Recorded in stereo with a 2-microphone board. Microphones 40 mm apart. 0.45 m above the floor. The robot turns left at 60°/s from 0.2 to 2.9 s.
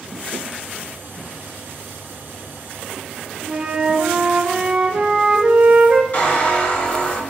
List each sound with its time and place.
3.5 s a flute: 30° right (ahead or behind), 0.7 m
6.1 s a squeak: 45° left (ahead or behind), 2 m